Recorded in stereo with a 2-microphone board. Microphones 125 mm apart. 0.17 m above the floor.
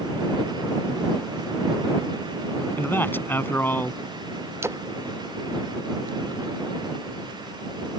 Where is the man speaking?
15° left (ahead or behind).